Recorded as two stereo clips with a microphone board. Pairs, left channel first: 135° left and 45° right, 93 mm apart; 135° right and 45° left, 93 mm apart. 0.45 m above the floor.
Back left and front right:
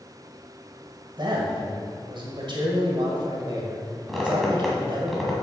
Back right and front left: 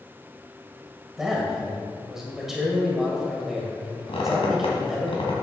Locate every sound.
1.2 s a man speaking: 40° right, 2 m
4.1 s a squeak: 135° right, 2 m